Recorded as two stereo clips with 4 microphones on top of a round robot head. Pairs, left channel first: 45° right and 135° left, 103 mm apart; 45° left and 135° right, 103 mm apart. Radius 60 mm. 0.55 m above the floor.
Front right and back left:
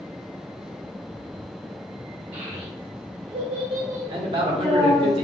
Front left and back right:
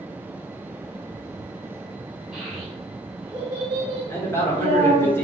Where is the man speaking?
110° left, 1.3 m.